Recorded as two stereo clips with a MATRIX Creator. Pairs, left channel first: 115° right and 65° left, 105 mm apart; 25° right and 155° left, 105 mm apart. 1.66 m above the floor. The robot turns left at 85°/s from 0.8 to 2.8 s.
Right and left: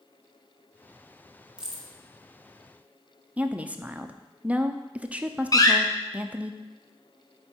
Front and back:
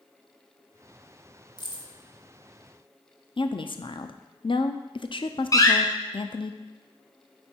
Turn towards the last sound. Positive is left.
turn(degrees=-70)